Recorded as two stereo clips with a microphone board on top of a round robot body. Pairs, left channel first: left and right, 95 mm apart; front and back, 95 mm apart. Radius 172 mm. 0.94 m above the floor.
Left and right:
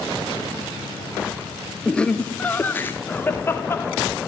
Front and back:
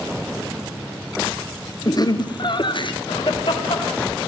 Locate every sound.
1.9 s laughter: 10° left, 0.9 m; by 3.9 s 25° left, 2.5 m